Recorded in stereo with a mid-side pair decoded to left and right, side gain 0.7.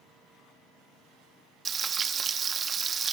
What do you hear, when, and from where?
1.6 s frying: 25° right, 1.1 m